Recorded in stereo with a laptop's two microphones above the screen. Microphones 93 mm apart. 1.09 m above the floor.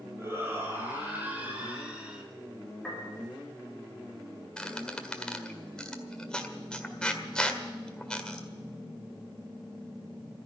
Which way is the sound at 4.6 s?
10° left (ahead or behind).